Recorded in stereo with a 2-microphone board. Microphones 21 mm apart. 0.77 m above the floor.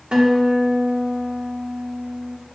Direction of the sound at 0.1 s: 45° right (ahead or behind).